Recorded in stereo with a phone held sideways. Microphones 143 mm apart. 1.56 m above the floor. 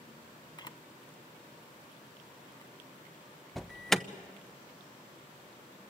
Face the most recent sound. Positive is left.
turn(degrees=0)  # may be behind; listen again after turning